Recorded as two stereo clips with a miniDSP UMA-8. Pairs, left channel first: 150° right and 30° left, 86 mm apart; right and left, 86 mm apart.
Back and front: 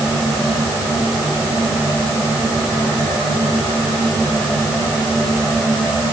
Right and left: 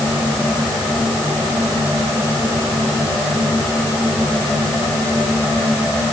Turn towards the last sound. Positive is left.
No sound to turn to.